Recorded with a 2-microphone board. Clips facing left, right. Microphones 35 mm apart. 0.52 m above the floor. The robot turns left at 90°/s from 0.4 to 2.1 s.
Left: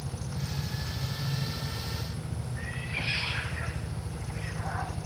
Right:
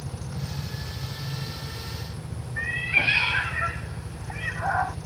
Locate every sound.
0.0 s a helicopter: straight behind; by 5.1 s 30° left
2.6 s a cat meowing: 70° right (ahead or behind)